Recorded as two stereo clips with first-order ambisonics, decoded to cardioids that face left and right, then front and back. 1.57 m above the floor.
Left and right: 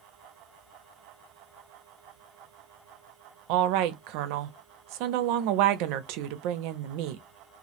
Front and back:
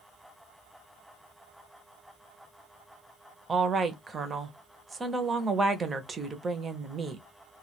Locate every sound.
3.5 s a woman speaking: 105° right, 0.5 m